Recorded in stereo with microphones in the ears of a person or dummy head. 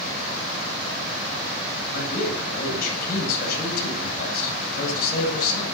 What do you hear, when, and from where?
1.9 s a man speaking: 55° left (ahead or behind), 9.5 m